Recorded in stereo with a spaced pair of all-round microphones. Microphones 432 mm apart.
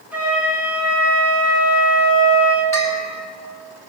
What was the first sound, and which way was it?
A flute, 5° right (ahead or behind).